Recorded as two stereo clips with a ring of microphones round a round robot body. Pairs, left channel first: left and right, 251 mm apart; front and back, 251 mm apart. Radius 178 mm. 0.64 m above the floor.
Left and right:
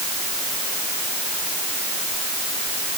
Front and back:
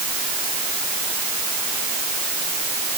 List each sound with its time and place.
Only background noise.